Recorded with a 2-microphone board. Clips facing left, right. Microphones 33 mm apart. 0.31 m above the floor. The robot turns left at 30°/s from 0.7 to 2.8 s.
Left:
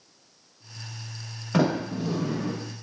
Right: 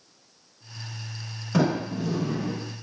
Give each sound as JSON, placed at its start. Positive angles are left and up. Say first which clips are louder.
{"t": 1.5, "sound": "a sliding door", "louder": "even", "side_deg": 35, "distance_m": 0.9}